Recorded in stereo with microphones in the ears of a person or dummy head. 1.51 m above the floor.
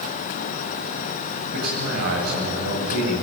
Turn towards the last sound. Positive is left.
turn(degrees=-60)  # may be behind; listen again after turning